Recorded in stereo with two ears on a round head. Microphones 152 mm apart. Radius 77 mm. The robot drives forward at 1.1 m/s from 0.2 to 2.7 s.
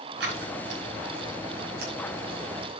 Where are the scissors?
80° right, 6 m; by 1.9 s 65° right (ahead or behind), 6.5 m.